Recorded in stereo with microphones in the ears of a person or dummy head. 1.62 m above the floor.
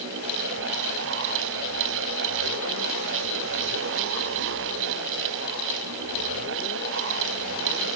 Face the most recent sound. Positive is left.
No sound to turn to.